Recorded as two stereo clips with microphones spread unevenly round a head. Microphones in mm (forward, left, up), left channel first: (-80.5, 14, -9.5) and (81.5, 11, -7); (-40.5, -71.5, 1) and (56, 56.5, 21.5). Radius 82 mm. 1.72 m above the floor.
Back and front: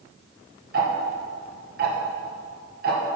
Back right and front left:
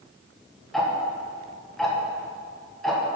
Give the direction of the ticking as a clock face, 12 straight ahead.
1 o'clock.